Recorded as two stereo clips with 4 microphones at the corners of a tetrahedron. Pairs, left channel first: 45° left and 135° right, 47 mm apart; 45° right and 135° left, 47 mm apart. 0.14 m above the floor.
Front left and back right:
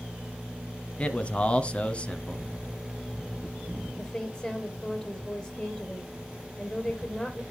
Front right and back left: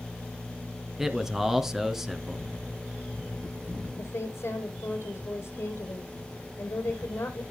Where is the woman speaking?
25° right, 4 m.